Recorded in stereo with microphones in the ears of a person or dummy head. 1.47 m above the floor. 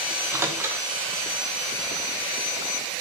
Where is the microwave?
15° right (ahead or behind), 0.7 m.